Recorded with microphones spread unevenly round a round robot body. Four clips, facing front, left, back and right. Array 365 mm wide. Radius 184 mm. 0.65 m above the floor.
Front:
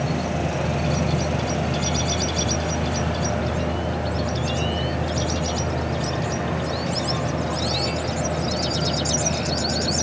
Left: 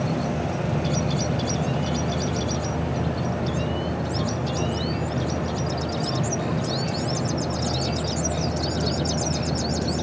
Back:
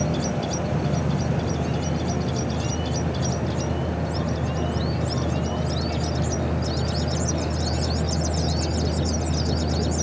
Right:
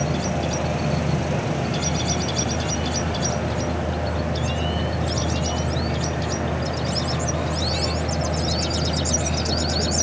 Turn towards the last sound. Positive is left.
No sound to turn to.